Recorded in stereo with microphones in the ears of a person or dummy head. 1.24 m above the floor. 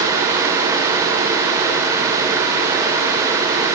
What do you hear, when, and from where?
Only background noise.